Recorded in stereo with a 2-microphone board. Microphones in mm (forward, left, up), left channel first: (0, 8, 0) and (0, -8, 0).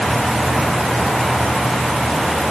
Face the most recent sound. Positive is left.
No sound to turn to.